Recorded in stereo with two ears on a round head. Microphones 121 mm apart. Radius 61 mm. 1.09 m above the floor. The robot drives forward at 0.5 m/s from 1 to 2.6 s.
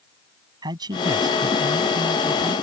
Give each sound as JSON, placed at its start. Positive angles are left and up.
{"t": 0.6, "sound": "a man speaking", "side_deg": -30}